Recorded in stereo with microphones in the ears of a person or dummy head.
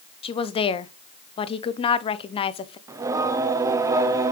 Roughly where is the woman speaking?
Left.